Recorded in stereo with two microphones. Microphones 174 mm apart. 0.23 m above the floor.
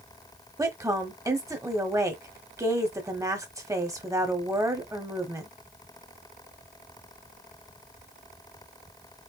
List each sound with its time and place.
0.6 s a woman speaking: 20° right (ahead or behind), 1.0 m